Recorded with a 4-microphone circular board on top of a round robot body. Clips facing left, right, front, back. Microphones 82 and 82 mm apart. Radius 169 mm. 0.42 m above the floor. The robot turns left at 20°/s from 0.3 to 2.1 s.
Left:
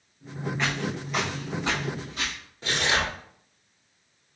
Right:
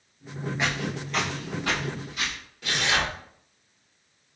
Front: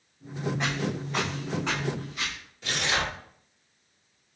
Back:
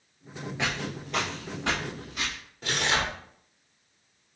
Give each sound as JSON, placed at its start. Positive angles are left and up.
{"t": 0.6, "sound": "footsteps", "azimuth_deg": -165, "distance_m": 0.6}
{"t": 2.6, "sound": "tearing paper", "azimuth_deg": 145, "distance_m": 1.9}